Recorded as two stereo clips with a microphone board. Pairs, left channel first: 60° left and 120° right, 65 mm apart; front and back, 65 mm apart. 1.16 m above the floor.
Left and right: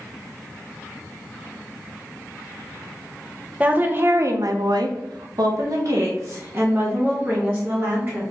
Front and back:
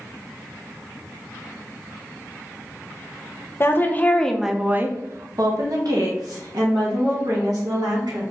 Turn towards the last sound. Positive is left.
turn(degrees=-175)